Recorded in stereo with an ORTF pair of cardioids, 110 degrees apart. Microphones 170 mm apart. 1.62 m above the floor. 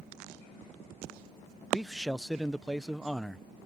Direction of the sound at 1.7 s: Straight ahead.